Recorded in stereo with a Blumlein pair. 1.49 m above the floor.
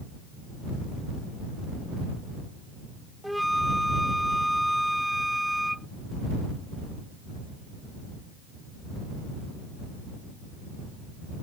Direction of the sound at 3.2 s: Straight ahead.